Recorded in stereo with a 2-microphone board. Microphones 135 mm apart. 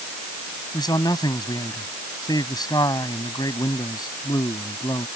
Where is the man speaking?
30° left (ahead or behind).